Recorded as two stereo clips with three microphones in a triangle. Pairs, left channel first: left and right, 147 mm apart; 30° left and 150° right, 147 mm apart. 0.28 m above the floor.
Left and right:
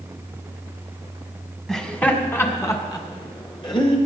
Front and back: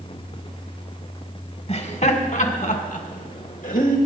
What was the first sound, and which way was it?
Laughter, 5° left.